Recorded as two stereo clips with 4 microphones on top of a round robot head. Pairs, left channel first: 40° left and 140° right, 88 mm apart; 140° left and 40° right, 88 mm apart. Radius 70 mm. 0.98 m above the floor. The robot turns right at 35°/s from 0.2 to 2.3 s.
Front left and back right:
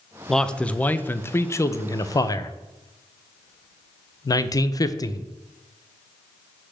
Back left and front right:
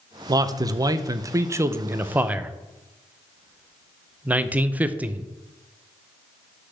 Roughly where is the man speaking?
Ahead right.